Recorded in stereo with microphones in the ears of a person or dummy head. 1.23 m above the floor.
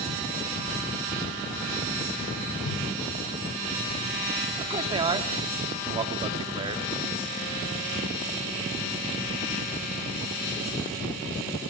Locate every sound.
2.6 s a whoosh: 90° left, 4.5 m
4.6 s a man speaking: 25° right (ahead or behind), 2.5 m